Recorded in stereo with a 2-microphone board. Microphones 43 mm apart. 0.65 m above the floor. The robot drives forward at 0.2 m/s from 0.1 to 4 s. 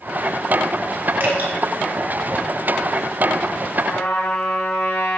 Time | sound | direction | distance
1.2 | dripping | 45° right (ahead or behind) | 2 m
3.9 | a trumpet | 65° left (ahead or behind) | 1.7 m